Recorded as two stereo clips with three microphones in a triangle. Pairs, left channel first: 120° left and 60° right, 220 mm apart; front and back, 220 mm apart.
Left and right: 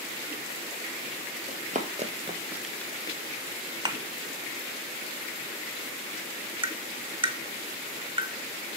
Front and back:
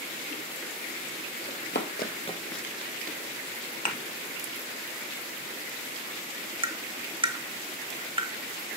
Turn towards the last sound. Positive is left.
turn(degrees=-120)